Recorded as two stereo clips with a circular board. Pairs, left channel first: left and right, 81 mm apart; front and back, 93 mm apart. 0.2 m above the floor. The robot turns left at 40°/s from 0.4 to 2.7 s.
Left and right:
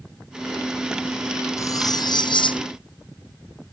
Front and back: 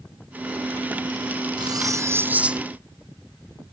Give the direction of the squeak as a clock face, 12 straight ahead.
I don't hear a squeak.